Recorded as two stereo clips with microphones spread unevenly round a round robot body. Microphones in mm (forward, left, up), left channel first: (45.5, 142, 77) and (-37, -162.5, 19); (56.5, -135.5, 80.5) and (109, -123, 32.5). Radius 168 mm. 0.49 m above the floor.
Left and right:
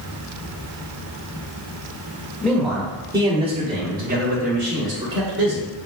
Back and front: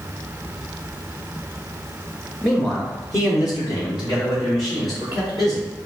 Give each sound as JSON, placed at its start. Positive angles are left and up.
{"t": 2.4, "sound": "a man speaking", "azimuth_deg": -25, "distance_m": 1.0}